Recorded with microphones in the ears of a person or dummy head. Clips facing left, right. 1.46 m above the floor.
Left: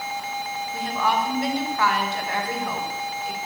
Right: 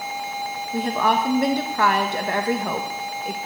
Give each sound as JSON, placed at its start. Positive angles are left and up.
{"t": 0.7, "sound": "a woman speaking", "side_deg": -40, "distance_m": 1.3}